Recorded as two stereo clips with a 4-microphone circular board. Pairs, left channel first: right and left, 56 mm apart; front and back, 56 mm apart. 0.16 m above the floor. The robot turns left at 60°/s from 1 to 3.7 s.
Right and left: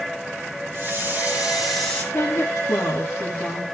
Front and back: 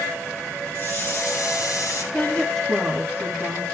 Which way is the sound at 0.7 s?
45° left.